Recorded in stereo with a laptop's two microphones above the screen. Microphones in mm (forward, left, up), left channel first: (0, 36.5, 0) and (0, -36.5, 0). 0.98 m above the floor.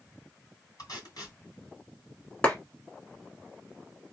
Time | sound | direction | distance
0.8 | tape being pulled | 70° left (ahead or behind) | 3 m
2.4 | a clap | 20° left (ahead or behind) | 1.3 m